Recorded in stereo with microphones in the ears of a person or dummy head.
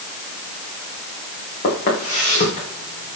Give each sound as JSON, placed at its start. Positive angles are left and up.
{"t": 1.6, "sound": "footsteps", "side_deg": 45, "distance_m": 8.5}